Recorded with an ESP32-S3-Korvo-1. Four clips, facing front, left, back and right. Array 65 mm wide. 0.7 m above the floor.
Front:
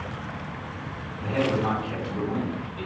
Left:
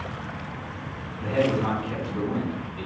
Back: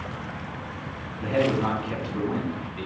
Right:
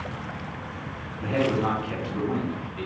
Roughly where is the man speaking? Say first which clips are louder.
Left 1 dB, back 2 dB; behind right.